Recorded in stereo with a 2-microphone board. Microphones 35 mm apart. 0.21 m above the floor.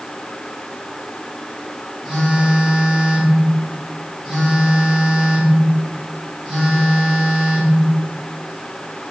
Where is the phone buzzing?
10° right (ahead or behind), 1.5 m.